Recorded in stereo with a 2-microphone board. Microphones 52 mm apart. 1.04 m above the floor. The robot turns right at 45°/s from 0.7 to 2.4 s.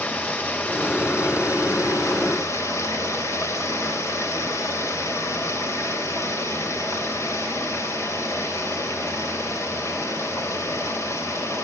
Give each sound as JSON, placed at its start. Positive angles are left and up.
{"t": 0.0, "sound": "running water", "azimuth_deg": 35, "distance_m": 2.5}